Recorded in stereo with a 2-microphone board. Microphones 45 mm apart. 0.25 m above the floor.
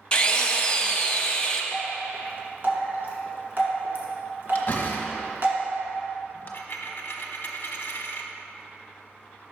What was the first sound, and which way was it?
A drill, 20° left (ahead or behind).